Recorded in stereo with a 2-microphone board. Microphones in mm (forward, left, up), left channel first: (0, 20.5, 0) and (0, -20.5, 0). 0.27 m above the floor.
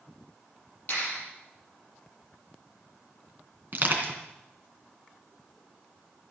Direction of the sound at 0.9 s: 35° left (ahead or behind).